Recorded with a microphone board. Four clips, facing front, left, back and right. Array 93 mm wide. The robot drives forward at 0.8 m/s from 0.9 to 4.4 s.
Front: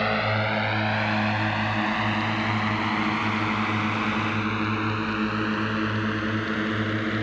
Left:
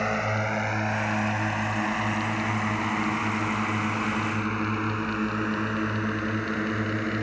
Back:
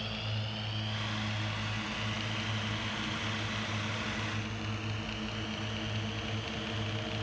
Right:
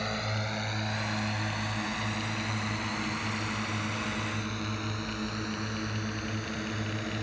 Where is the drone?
25° left; by 7.2 s 30° left.